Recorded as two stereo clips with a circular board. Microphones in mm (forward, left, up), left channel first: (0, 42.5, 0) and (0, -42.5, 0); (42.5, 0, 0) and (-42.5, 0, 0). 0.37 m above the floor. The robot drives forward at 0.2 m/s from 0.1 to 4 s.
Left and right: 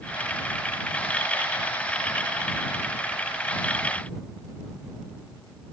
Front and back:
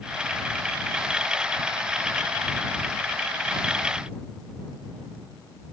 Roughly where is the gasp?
I don't hear a gasp.